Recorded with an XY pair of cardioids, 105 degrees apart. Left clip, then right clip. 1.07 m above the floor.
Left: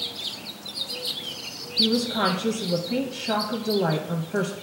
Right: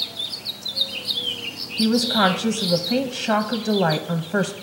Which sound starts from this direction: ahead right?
A woman speaking, at 1.8 s.